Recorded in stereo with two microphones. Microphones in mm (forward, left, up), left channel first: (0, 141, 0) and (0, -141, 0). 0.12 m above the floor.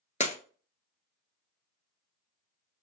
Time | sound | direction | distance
0.2 | breaking glass | 30° left (ahead or behind) | 0.7 m